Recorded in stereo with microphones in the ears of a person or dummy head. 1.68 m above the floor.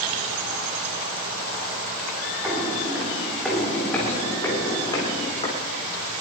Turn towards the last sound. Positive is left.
turn(degrees=30)  # may be behind; listen again after turning